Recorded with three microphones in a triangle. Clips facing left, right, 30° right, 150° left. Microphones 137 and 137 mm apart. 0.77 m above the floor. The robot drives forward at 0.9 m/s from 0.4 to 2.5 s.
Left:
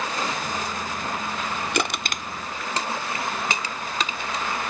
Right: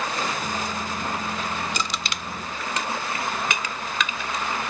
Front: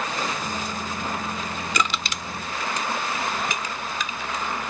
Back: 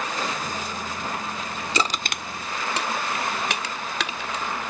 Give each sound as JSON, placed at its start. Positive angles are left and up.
{"t": 1.7, "sound": "crushing", "azimuth_deg": 90}